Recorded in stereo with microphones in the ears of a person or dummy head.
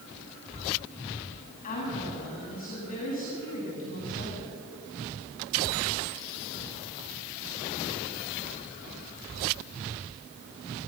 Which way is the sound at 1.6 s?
45° left (ahead or behind).